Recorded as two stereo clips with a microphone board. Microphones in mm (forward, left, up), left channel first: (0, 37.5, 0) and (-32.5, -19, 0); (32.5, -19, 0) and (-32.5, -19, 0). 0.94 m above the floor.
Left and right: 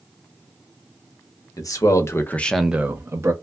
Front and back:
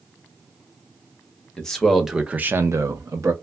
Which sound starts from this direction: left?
A man speaking, at 1.6 s.